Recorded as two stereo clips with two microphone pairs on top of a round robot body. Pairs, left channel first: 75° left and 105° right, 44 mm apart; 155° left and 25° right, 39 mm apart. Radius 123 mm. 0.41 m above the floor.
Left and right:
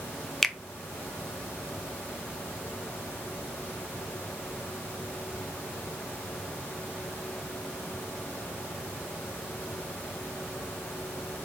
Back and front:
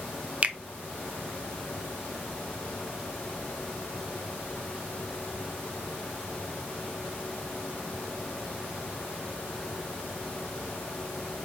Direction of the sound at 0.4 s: 25° left.